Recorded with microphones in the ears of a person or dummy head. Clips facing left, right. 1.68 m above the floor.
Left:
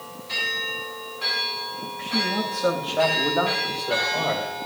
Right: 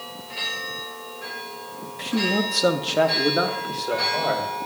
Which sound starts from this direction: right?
A man speaking, at 2.0 s.